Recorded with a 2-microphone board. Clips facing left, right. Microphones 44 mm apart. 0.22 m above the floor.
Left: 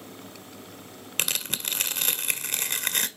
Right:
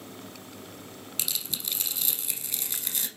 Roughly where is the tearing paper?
Left.